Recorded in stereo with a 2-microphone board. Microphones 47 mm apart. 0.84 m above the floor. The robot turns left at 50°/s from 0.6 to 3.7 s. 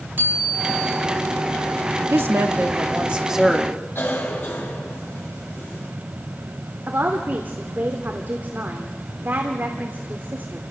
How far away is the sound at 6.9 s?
About 2 m.